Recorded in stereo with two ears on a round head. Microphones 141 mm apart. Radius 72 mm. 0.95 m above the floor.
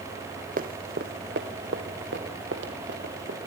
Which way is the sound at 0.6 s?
50° right (ahead or behind).